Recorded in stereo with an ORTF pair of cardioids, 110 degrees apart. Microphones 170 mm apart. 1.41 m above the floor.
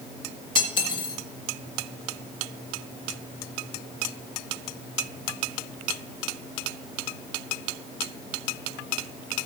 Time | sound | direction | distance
0.6 | cutlery clinking | 30° left | 1.7 m